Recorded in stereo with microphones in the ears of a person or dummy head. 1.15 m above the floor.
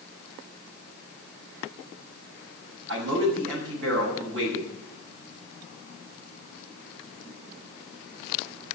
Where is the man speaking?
75° right (ahead or behind), 6.5 m.